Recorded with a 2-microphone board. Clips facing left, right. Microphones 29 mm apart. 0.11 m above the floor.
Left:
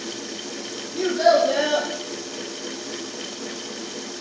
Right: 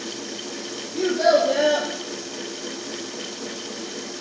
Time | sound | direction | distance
0.9 | a child speaking | 20° left (ahead or behind) | 1.3 m